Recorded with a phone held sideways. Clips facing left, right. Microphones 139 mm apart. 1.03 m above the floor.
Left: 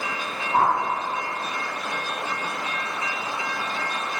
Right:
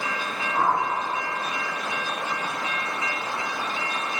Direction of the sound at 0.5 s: 65° left (ahead or behind).